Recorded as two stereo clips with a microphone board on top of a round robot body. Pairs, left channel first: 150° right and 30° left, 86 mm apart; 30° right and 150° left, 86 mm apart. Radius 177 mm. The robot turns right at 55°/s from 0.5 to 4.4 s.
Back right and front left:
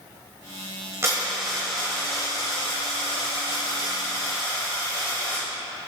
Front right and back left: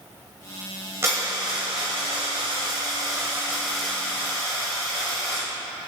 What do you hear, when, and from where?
1.0 s a dropped coin: 90° left, 0.8 m; by 5.5 s 85° right, 0.8 m